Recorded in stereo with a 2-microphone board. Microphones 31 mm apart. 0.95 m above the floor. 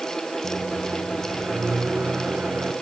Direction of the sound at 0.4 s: 65° right (ahead or behind).